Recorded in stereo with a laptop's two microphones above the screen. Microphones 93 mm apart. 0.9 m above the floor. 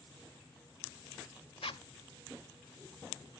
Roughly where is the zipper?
Left.